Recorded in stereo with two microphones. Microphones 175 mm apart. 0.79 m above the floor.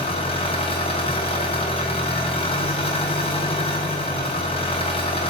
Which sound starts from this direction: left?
An engine running, at 0.0 s.